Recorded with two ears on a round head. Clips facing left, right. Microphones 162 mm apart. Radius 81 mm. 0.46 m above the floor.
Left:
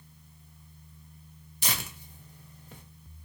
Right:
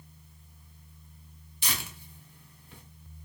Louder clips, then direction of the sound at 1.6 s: Left 2 dB; 40° left (ahead or behind).